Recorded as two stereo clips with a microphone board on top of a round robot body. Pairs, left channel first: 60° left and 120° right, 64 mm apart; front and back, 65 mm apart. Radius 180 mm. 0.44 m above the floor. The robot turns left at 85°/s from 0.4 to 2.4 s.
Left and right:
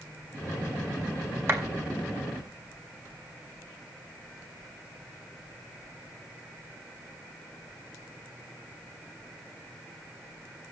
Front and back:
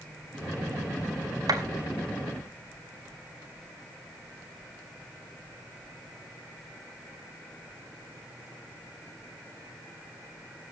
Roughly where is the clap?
Behind.